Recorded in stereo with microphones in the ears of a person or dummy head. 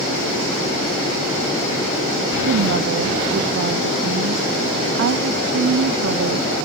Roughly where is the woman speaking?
Right.